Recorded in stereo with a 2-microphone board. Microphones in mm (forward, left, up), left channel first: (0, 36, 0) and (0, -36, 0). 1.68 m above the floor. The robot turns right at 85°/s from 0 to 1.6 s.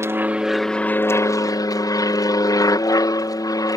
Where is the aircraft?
50° right; by 3.8 s 85° left.